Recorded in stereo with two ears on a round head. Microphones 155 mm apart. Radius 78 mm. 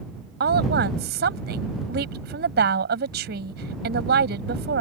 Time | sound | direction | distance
0.4 | a woman speaking | 70° right (ahead or behind) | ?